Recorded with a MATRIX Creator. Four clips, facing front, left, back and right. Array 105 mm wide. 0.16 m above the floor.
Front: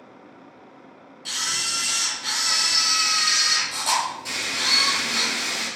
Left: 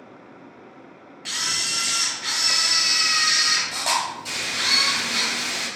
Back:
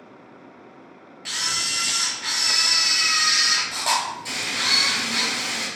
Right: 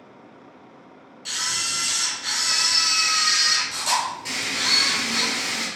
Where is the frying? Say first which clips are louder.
Even, back 1 dB; 80° right, 1.9 m.